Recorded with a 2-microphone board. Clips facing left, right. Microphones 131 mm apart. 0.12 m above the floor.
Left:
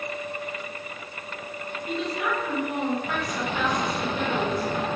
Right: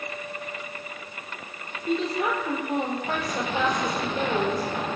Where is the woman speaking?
40° right (ahead or behind), 3.5 m.